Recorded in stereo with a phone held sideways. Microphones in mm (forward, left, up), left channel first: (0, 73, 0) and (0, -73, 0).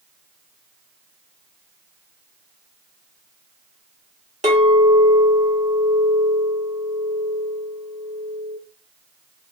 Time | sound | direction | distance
4.4 | a clink | 55° right (ahead or behind) | 1.2 m